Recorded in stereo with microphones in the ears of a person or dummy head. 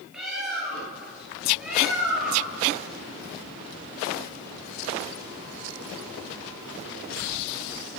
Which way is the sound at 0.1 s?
5° right (ahead or behind).